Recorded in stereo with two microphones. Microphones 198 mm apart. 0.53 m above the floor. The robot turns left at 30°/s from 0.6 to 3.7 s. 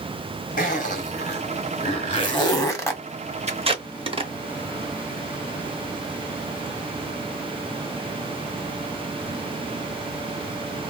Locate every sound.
0.6 s a zipper: 45° left (ahead or behind), 1.2 m; by 3.0 s 10° left (ahead or behind), 1.2 m
3.5 s tape being pulled: 35° right (ahead or behind), 0.8 m; by 4.3 s 30° right (ahead or behind), 0.8 m